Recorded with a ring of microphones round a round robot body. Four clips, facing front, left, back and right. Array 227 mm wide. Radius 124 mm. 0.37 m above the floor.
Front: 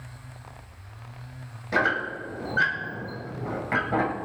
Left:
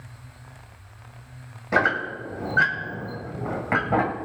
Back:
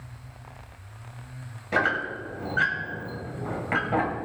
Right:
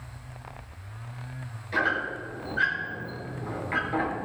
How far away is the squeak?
About 1.7 m.